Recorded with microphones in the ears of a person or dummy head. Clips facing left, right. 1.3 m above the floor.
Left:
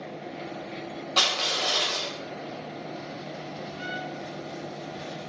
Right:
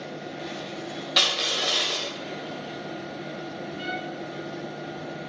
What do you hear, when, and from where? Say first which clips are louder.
1.2 s crushing: left 1 dB; 25° right (ahead or behind), 2.5 m
3.8 s a trumpet: right 3 dB; 70° right (ahead or behind), 3 m